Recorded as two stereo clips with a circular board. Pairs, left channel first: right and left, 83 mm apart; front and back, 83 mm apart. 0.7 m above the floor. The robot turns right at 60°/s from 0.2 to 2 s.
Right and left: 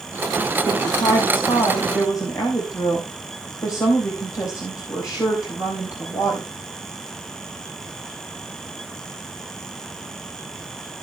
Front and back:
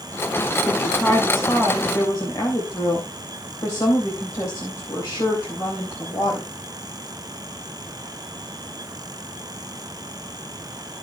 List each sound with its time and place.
0.6 s a woman speaking: 125° right, 3.5 m; by 6.5 s 45° right, 3.5 m